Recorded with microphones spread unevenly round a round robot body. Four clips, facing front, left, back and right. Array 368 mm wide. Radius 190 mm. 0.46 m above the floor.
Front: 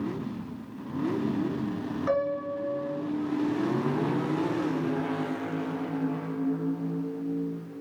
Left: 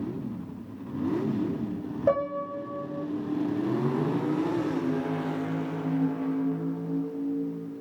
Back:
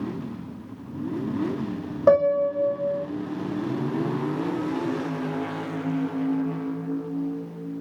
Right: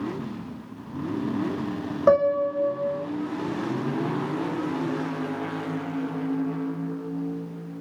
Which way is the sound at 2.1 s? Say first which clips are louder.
Right 7 dB, back 11 dB; 130° right.